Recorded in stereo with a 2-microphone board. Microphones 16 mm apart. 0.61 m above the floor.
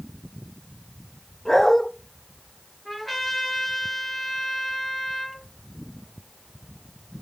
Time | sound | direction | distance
1.4 | a dog barking | 20° left (ahead or behind) | 3 m
2.9 | a trumpet | centre (ahead or behind) | 4.5 m